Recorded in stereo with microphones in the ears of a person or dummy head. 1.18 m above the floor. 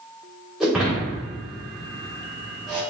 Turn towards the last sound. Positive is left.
turn(degrees=0)  # may be behind; listen again after turning